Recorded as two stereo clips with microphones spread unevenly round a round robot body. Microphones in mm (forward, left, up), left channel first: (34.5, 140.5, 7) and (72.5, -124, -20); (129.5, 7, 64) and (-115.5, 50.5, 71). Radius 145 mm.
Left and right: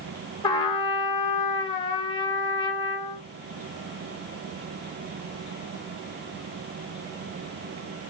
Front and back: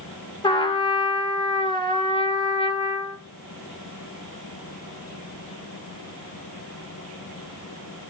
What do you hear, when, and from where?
0.4 s a trumpet: 30° left, 0.8 m